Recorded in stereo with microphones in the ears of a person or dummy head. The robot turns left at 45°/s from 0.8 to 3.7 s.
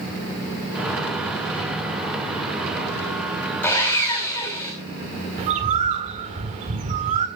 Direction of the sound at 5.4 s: 35° right (ahead or behind).